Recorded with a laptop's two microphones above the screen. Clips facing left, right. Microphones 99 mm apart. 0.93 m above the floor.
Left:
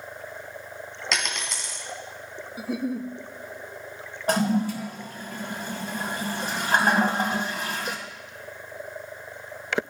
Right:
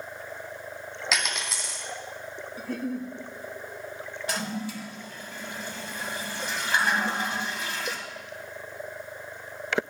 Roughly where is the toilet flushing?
Left.